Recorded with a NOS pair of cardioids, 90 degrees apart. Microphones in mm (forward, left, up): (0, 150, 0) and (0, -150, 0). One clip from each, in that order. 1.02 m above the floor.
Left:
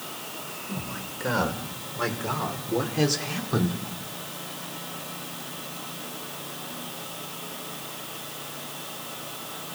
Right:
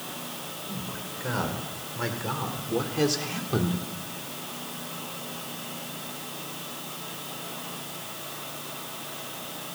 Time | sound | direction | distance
0.7 | a man speaking | 25° left | 5 m